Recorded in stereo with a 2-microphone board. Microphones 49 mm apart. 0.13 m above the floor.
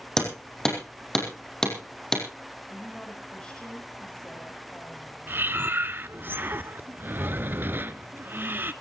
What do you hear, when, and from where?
0.2 s hammering: 10° left (ahead or behind), 4.5 m
2.7 s a woman speaking: 20° left (ahead or behind), 6 m
5.3 s breathing: 40° right (ahead or behind), 0.6 m